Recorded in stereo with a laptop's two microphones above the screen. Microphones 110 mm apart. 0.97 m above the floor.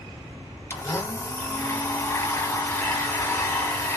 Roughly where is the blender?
Left.